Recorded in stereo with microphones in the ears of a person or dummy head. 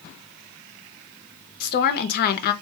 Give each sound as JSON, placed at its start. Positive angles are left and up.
{"t": 1.6, "sound": "a woman speaking", "side_deg": 50, "distance_m": 0.6}